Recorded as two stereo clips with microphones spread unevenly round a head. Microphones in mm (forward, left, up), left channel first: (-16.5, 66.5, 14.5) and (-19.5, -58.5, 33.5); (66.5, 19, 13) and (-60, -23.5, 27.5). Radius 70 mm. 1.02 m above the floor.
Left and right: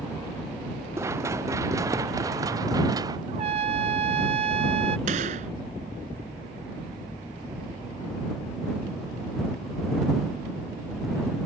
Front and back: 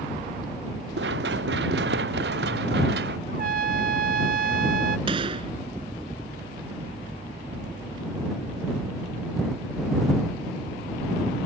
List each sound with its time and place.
1.0 s running footsteps: 160° right; by 3.2 s 150° right
3.3 s a trumpet: 135° right
5.1 s a gunshot: 110° right